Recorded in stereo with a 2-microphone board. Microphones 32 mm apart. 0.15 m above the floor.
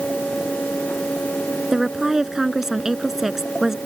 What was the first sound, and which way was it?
A woman speaking, 10° right (ahead or behind).